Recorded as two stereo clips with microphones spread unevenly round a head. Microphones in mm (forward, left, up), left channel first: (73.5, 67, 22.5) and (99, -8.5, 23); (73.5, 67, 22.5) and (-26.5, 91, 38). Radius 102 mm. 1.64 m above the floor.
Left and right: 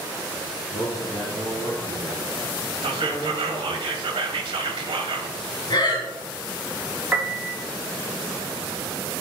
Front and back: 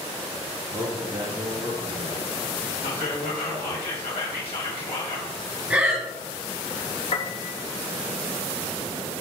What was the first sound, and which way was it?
A man speaking, 110° left.